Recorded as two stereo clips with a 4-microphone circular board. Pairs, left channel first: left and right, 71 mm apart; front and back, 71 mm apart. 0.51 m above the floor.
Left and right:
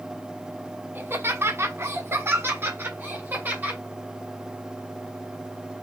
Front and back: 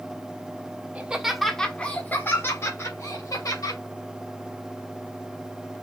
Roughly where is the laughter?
Behind right.